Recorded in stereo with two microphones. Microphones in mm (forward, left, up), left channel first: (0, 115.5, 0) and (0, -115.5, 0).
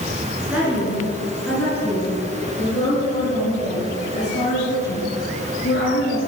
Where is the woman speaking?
5° right (ahead or behind), 3 m; by 6.2 s 45° left (ahead or behind), 4.5 m.